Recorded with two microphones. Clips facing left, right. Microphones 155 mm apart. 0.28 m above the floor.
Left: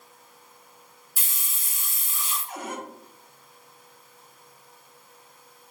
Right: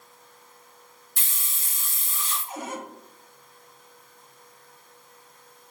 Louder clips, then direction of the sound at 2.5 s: Right 1 dB; 25° right (ahead or behind).